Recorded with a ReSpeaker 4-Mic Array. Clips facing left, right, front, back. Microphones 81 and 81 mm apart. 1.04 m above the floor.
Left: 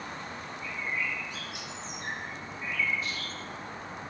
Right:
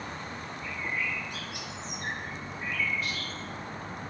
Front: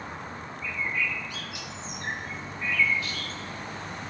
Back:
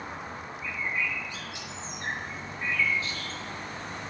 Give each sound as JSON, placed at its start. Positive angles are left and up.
{"t": 0.6, "sound": "a bird", "azimuth_deg": -120, "distance_m": 0.9}